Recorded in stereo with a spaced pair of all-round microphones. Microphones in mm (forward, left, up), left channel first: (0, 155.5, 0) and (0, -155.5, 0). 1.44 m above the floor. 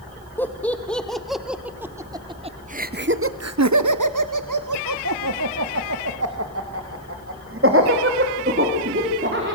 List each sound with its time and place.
0.4 s laughter: 5° left (ahead or behind), 2.5 m; by 9.6 s 35° right (ahead or behind), 4.5 m